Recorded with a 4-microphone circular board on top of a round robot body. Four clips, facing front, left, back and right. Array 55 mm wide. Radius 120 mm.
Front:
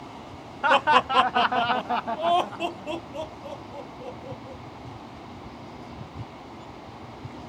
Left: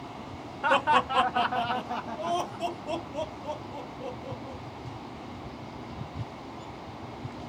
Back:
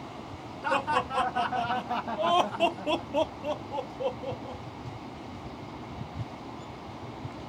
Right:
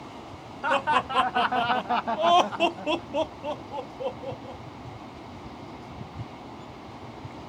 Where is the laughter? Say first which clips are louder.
Left 1 dB, front 8 dB; straight ahead, 0.9 m; by 4.6 s 135° right, 1.5 m.